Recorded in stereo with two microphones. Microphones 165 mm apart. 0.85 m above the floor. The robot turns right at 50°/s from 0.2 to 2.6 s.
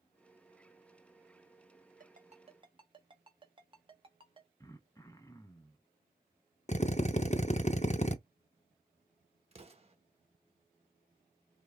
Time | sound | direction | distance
2.0 | a ringtone | 60° right (ahead or behind) | 1.0 m
4.6 | throat clearing | 20° left (ahead or behind) | 0.7 m
6.7 | a drill | 45° left (ahead or behind) | 0.5 m
9.5 | an explosion | 35° right (ahead or behind) | 1.2 m